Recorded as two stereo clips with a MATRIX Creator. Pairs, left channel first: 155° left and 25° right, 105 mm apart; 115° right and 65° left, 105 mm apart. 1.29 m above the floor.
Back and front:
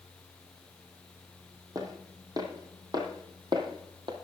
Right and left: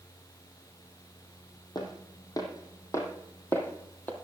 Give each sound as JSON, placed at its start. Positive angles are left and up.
{"t": 1.8, "sound": "footsteps", "azimuth_deg": -70, "distance_m": 2.5}